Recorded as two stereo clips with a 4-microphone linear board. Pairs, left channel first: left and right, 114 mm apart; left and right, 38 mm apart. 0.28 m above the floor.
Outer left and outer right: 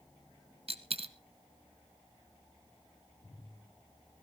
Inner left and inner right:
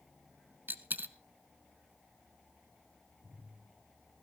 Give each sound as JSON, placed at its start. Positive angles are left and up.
{"t": 0.7, "sound": "a dropped coin", "side_deg": -60, "distance_m": 0.9}